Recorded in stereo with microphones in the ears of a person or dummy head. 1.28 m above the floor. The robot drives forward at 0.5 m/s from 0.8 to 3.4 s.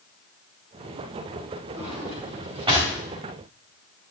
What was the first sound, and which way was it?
A drawer, 35° right (ahead or behind).